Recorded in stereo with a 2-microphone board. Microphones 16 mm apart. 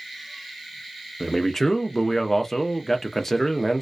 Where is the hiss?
I don't hear a hiss.